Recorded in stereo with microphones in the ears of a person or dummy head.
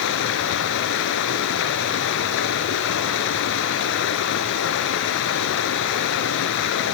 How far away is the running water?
About 3.5 m.